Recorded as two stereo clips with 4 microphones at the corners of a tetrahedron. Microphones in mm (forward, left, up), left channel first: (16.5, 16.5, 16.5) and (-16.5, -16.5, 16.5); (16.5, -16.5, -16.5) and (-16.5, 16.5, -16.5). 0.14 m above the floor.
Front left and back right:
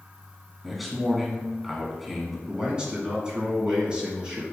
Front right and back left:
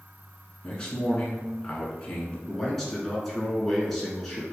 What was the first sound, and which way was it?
A man speaking, 50° right.